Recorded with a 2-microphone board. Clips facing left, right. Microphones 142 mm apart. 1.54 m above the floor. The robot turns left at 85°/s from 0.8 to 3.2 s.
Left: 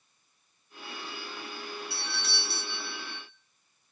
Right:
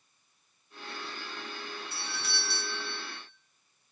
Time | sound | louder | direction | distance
1.9 | a doorbell | left 1 dB | 105° left | 1.6 m